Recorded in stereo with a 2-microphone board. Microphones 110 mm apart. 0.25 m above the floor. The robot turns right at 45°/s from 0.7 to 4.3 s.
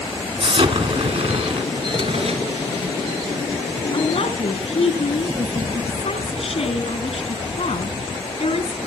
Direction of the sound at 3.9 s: 55° left (ahead or behind).